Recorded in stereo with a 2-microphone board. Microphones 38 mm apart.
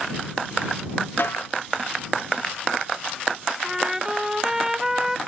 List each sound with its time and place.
1.2 s a snare drum: 70° left (ahead or behind)
3.6 s a trumpet: 10° right (ahead or behind)